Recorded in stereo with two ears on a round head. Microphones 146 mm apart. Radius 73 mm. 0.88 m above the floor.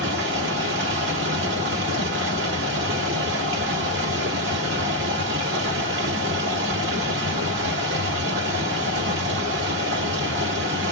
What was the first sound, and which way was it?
Running water, 80° right.